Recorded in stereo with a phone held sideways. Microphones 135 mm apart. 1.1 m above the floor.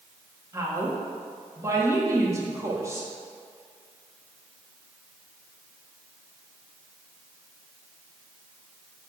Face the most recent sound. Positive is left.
turn(degrees=-25)  # may be behind; listen again after turning